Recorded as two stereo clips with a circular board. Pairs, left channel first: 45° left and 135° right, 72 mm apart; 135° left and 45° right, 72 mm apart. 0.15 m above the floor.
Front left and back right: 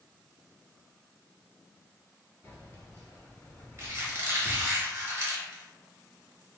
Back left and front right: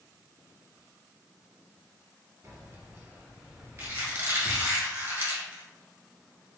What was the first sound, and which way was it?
Keys jangling, 10° right.